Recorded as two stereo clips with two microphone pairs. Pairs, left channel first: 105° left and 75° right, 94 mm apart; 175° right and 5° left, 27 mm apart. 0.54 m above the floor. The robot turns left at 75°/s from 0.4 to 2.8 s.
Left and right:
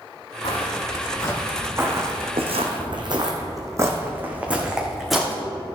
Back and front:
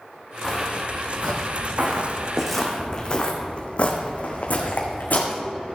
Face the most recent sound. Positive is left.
turn(degrees=-170)